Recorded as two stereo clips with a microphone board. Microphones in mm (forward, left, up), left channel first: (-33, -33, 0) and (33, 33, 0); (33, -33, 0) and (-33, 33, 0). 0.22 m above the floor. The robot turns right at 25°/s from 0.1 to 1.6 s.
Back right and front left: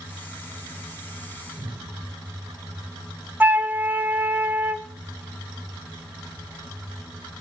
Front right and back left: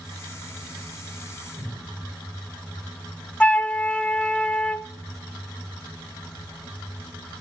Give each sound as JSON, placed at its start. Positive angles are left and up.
{"t": 1.6, "sound": "a cupboard door", "azimuth_deg": 75, "distance_m": 6.0}
{"t": 3.4, "sound": "a flute", "azimuth_deg": 10, "distance_m": 0.5}